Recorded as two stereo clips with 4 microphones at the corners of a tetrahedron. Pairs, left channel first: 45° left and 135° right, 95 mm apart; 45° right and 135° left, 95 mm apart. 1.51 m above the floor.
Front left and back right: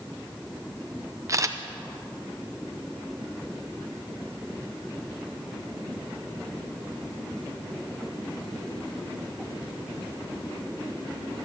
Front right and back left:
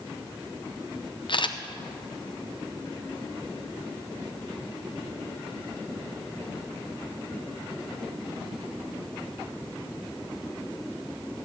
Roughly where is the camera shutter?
Right.